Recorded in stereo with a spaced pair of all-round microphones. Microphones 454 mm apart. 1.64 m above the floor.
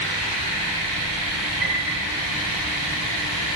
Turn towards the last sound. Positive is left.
turn(degrees=-50)  # may be behind; listen again after turning